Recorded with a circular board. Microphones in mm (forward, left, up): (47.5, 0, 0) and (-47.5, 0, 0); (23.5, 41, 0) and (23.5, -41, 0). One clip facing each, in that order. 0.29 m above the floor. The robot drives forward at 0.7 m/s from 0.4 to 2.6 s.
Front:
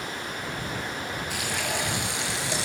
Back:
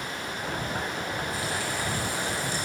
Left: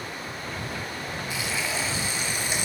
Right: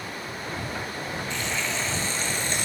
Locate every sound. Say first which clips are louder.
1.3 s frying: even, left 1 dB; 10° left, 5 m